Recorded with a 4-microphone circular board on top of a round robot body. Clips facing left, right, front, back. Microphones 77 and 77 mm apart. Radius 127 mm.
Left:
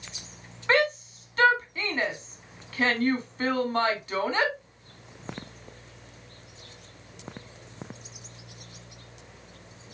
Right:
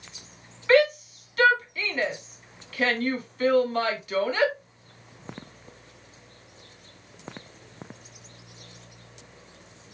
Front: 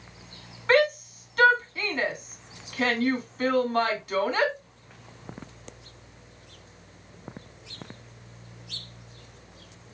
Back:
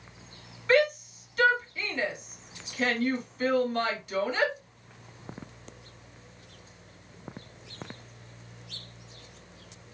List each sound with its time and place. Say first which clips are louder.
0.7 s a shout: right 4 dB, front 2 dB; 35° left, 2.5 m